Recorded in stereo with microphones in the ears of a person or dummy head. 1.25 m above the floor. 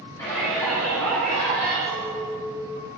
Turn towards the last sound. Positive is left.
turn(degrees=0)  # may be behind; listen again after turning